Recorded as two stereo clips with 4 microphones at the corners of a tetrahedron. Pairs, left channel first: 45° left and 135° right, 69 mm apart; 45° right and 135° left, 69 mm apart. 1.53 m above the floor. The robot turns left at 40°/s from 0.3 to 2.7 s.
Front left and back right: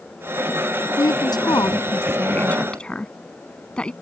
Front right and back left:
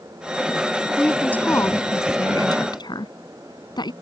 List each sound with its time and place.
1.0 s a woman speaking: 40° left; by 3.9 s 30° right